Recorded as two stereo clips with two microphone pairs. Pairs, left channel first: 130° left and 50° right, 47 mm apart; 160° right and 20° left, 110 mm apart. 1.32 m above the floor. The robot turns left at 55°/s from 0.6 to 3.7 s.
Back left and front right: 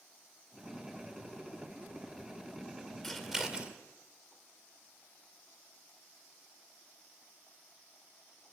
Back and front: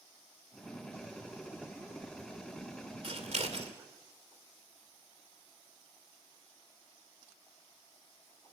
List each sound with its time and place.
3.0 s scissors: 45° left, 2.5 m; by 3.7 s 10° left, 2.5 m